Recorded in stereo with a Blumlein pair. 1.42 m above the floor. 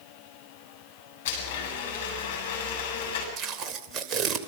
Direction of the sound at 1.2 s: 55° left.